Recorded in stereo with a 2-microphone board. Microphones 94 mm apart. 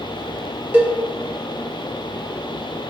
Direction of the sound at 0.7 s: 20° right (ahead or behind).